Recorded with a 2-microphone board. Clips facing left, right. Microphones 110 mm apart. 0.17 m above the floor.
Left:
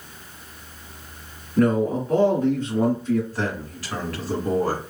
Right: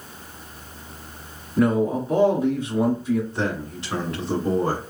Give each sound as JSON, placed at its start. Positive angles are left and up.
{"t": 1.6, "sound": "a man speaking", "side_deg": -10, "distance_m": 1.8}
{"t": 3.3, "sound": "a man speaking", "side_deg": -25, "distance_m": 1.7}